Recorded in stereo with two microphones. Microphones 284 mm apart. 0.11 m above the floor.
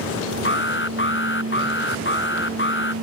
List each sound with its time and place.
0.5 s an alarm: 45° left (ahead or behind)